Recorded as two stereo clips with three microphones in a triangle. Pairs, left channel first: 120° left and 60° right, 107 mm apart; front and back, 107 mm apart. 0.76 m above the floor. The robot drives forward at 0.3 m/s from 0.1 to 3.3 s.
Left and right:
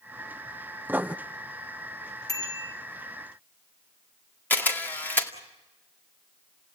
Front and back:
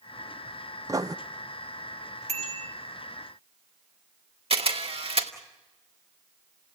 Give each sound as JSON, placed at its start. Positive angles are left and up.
{"t": 0.9, "sound": "writing", "azimuth_deg": -130, "distance_m": 0.6}
{"t": 2.3, "sound": "a bicycle bell", "azimuth_deg": 175, "distance_m": 2.5}
{"t": 4.5, "sound": "a camera shutter", "azimuth_deg": -170, "distance_m": 2.0}